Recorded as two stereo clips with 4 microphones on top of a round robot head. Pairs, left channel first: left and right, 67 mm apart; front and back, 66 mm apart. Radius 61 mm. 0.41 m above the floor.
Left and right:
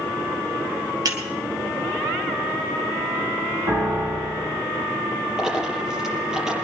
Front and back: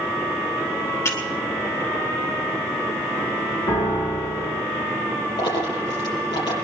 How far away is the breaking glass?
About 2 m.